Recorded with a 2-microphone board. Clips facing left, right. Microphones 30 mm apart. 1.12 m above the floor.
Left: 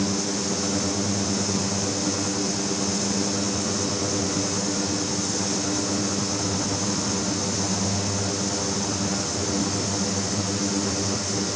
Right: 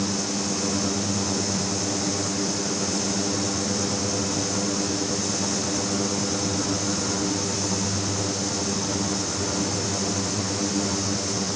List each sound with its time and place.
Only background noise.